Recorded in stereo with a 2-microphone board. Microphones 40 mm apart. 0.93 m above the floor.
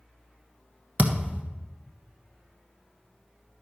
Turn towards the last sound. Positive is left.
turn(degrees=-35)  # may be behind; listen again after turning